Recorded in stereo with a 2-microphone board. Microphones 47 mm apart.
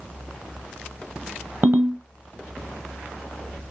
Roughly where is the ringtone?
Right.